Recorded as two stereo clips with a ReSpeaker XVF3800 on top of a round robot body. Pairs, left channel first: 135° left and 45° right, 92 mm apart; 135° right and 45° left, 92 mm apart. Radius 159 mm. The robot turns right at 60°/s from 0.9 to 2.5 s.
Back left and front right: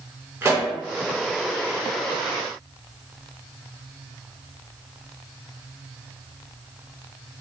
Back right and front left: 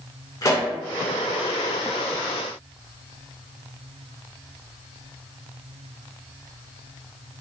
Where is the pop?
100° right, 1.3 m.